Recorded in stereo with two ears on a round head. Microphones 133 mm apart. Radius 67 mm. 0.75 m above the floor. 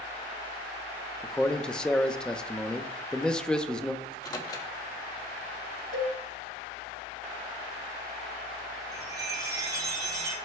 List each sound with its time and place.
1.2 s a man speaking: 5° left (ahead or behind), 0.7 m
4.0 s a microwave: 25° left (ahead or behind), 1.2 m
5.9 s a cowbell: 60° left (ahead or behind), 1.2 m
8.9 s a chime: 30° right (ahead or behind), 4.5 m